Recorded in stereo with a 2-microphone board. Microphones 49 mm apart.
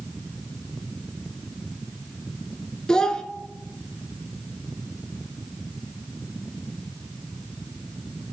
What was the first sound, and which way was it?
A child speaking, 15° left (ahead or behind).